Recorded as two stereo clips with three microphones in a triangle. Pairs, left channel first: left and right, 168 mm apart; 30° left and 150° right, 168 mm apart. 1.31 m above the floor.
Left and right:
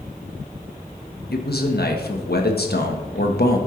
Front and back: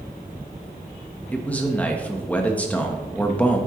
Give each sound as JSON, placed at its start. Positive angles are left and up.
{"t": 1.3, "sound": "a man speaking", "azimuth_deg": 110, "distance_m": 1.4}